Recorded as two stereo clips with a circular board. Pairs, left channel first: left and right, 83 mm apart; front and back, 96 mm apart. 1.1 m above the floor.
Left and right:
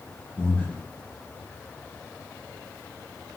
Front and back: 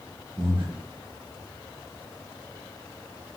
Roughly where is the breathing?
Behind.